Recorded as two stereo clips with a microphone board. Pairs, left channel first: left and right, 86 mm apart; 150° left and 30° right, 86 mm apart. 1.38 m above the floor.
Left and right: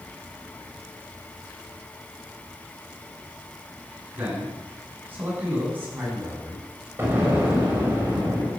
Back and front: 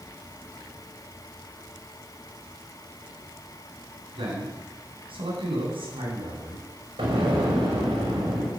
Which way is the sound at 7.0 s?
25° right.